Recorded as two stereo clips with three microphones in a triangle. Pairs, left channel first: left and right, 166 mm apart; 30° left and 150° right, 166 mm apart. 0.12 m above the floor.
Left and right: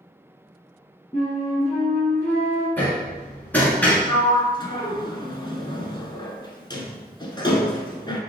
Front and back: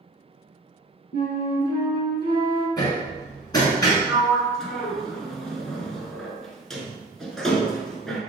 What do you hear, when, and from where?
1.1 s a flute: 10° left, 2.0 m
2.8 s hammering: 25° left, 1.2 m
4.1 s a sliding door: 115° left, 0.7 m